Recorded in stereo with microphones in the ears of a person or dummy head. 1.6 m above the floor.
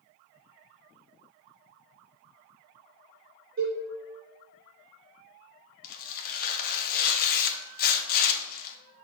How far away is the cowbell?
About 3.5 m.